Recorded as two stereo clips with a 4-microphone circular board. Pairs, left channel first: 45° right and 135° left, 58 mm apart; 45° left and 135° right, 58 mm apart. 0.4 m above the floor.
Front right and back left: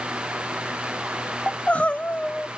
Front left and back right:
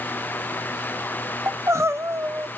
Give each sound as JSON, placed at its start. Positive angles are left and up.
{"t": 1.5, "sound": "crying", "azimuth_deg": -110, "distance_m": 0.6}